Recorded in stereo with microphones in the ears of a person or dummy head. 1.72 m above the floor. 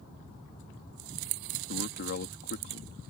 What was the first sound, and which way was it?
A man speaking, 55° left (ahead or behind).